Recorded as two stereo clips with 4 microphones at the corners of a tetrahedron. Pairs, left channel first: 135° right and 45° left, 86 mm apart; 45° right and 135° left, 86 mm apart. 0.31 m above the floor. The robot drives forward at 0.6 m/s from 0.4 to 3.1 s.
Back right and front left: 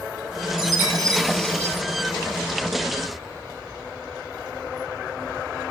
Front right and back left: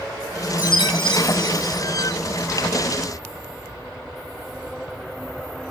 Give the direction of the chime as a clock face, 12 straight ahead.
1 o'clock.